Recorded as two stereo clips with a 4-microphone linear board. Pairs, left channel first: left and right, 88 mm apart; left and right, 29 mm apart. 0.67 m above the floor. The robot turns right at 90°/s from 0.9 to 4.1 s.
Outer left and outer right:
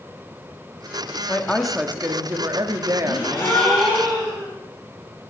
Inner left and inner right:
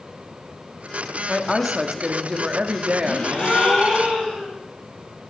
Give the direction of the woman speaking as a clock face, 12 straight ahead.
7 o'clock.